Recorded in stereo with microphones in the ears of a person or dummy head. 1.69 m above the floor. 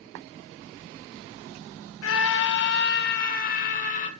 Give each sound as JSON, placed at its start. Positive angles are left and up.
{"t": 2.0, "sound": "a scream", "side_deg": 75, "distance_m": 1.1}